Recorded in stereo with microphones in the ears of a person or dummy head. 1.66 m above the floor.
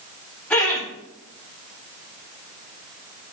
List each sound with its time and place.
0.5 s laughter: 5° left (ahead or behind), 4 m